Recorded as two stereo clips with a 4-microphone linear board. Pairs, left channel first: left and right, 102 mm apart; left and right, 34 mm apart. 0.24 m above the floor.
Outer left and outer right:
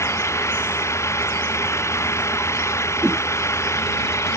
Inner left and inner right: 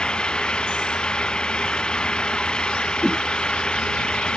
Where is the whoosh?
10° right (ahead or behind).